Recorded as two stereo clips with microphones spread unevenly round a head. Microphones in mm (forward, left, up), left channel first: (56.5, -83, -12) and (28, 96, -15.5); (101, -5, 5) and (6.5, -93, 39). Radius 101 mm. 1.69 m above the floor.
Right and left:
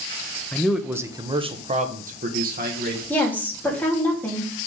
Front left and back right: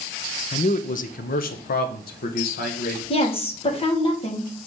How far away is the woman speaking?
About 3.5 m.